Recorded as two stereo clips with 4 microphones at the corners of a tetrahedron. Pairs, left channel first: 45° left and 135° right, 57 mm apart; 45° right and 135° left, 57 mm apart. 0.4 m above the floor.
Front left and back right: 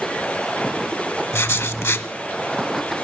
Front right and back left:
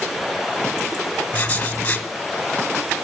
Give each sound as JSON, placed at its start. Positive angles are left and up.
{"t": 1.3, "sound": "writing", "azimuth_deg": 15, "distance_m": 0.8}